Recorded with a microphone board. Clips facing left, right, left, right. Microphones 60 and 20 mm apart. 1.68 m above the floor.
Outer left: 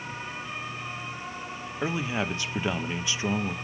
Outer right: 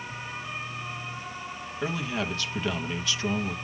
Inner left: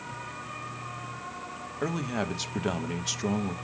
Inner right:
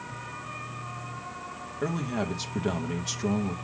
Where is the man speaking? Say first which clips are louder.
Outer left 1 dB, even; 20° left (ahead or behind), 0.8 m.